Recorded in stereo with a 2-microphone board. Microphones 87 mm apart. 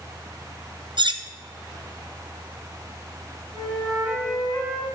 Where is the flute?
5° left (ahead or behind), 3.5 m.